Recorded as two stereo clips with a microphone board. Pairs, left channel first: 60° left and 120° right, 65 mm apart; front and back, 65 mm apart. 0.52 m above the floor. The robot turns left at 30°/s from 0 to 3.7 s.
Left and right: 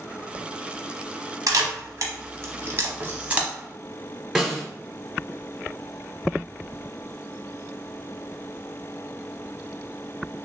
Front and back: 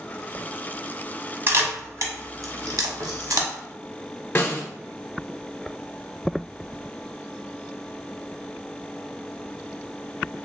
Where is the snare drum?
35° right, 0.8 m.